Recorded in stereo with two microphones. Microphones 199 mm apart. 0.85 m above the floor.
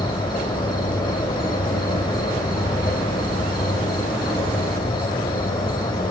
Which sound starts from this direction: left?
An insect, at 0.0 s.